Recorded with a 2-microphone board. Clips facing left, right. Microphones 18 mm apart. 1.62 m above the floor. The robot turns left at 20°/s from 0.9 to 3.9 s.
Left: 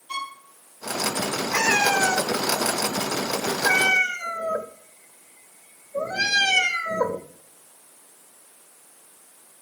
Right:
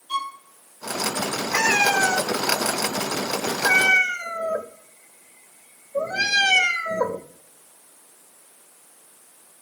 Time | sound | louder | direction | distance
0.1 | a violin | right 4 dB | 65° left (ahead or behind) | 7.5 m
1.5 | a cat meowing | right 1 dB | 40° right (ahead or behind) | 1.1 m